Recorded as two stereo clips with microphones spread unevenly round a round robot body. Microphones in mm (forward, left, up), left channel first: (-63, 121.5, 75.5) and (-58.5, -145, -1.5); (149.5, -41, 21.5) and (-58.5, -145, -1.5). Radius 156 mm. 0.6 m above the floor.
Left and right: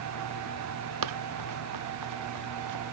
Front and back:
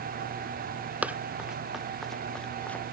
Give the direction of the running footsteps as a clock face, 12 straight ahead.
2 o'clock.